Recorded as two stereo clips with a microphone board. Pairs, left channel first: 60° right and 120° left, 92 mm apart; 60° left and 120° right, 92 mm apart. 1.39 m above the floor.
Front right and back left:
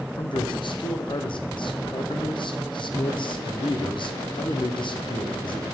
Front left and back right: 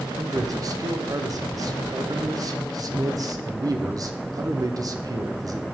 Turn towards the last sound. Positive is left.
turn(degrees=-80)